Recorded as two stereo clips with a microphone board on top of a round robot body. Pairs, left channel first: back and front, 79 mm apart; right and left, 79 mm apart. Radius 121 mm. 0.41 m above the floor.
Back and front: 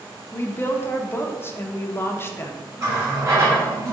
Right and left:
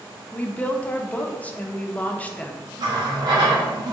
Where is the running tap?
55° left, 2 m.